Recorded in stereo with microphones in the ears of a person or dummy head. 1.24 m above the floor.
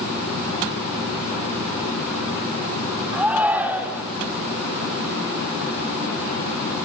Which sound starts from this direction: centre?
A shout, at 3.1 s.